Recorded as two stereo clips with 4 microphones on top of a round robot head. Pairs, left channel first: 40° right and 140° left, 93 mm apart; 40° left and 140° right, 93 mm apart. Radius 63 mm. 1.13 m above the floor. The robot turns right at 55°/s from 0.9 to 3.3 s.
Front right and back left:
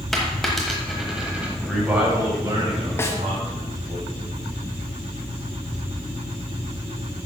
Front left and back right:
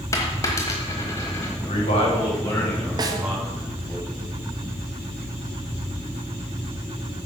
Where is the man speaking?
45° left, 5 m; by 4.0 s 140° left, 5 m.